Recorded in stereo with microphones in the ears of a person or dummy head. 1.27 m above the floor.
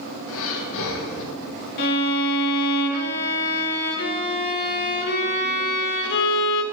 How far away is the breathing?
About 1.0 m.